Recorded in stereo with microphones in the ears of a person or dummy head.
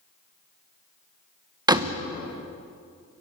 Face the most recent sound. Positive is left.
turn(degrees=-15)  # may be behind; listen again after turning